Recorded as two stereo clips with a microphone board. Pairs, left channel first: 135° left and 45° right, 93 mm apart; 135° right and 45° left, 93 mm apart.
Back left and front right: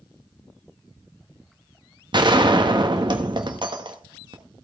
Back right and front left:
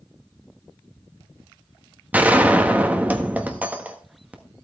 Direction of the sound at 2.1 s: 25° right.